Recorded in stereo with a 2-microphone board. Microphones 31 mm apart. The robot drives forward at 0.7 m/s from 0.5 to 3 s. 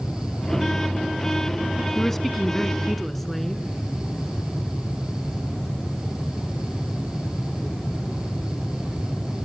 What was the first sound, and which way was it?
A woman speaking, 5° left (ahead or behind).